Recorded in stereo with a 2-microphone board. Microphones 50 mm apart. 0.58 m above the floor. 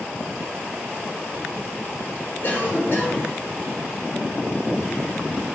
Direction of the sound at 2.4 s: 50° left (ahead or behind).